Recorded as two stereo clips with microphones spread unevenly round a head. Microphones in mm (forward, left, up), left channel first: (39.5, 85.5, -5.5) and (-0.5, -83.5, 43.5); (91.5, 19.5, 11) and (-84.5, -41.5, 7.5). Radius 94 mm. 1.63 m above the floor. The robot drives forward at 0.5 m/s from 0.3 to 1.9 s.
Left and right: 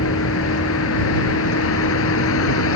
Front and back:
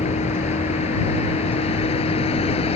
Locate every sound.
0.0 s a vehicle: 80° left